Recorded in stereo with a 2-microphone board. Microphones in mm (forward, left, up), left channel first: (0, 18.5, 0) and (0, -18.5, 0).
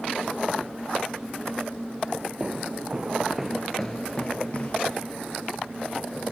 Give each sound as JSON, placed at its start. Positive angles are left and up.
{"t": 2.4, "sound": "footsteps", "side_deg": -30, "distance_m": 2.5}